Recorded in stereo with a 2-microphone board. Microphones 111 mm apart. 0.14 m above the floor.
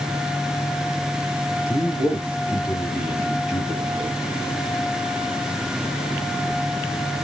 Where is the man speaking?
10° right (ahead or behind), 1.9 m; by 4.2 s 5° right (ahead or behind), 1.7 m.